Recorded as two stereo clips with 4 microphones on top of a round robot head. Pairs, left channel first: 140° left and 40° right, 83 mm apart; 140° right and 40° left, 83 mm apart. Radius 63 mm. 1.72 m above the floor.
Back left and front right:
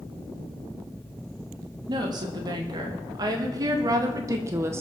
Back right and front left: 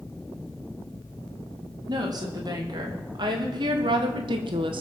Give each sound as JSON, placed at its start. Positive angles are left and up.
{"t": 1.9, "sound": "a woman speaking", "azimuth_deg": 0, "distance_m": 4.0}